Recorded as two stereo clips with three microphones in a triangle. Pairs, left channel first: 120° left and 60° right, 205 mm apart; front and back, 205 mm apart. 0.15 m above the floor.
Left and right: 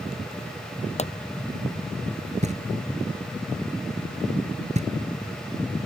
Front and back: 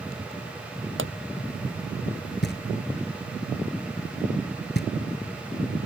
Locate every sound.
1.0 s a pop: 175° left
2.4 s knocking: 10° right